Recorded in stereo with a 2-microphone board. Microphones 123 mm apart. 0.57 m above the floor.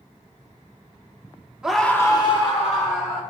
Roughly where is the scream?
Centre.